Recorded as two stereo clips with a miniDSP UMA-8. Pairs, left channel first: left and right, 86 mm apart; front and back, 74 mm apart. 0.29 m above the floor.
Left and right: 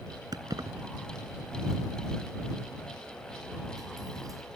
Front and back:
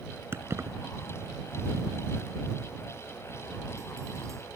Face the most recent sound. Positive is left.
turn(degrees=-135)